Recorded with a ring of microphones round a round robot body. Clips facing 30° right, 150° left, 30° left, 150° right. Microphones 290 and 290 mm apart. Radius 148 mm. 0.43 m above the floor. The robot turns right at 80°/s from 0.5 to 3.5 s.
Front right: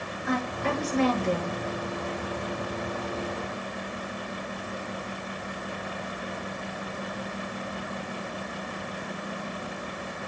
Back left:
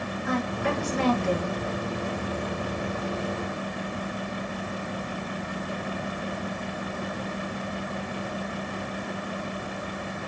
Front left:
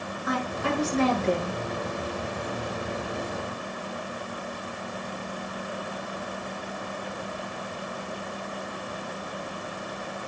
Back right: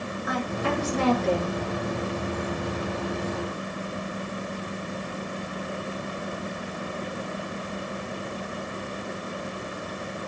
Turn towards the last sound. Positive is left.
turn(degrees=-60)